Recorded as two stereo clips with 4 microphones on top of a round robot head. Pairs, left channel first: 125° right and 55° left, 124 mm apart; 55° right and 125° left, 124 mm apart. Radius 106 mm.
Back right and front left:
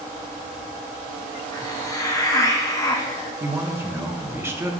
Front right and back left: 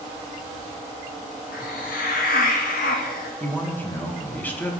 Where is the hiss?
60° right, 0.8 m.